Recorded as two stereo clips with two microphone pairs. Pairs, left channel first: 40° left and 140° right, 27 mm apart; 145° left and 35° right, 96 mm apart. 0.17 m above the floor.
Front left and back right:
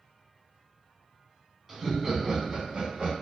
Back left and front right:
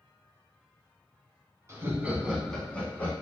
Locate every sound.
1.7 s laughter: 65° right, 1.2 m; by 3.1 s 160° right, 1.5 m